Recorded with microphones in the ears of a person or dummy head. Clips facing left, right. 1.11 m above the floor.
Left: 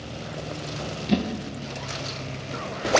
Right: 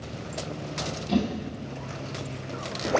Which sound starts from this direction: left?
A whoosh, at 1.1 s.